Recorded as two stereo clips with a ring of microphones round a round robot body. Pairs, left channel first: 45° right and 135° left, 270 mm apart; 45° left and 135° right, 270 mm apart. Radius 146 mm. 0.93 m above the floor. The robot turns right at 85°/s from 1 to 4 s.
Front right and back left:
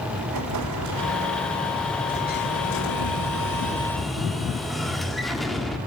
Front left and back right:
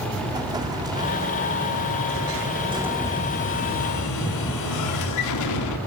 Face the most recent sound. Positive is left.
turn(degrees=45)